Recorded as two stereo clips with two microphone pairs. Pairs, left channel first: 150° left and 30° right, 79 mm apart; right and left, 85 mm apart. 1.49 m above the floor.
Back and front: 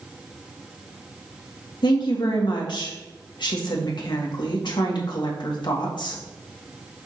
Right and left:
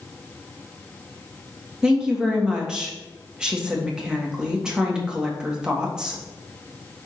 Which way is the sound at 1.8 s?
175° left.